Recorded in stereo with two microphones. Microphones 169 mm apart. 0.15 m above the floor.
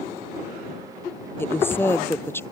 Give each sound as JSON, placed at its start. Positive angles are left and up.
{"t": 1.4, "sound": "a woman speaking", "side_deg": 15}